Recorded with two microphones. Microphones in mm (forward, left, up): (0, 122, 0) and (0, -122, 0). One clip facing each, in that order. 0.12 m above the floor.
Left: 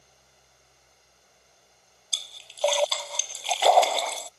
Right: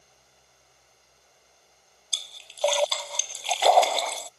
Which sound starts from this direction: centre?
A splash, at 2.1 s.